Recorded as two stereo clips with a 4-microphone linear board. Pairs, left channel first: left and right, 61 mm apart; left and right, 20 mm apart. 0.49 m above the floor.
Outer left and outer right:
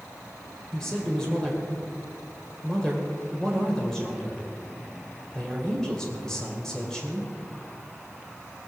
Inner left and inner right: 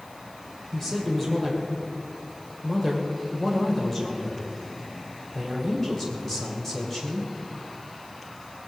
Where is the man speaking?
10° left (ahead or behind), 2 m.